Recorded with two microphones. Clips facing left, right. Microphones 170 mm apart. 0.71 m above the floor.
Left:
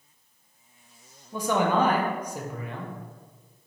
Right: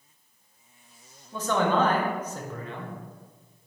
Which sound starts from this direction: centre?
A man speaking, at 1.3 s.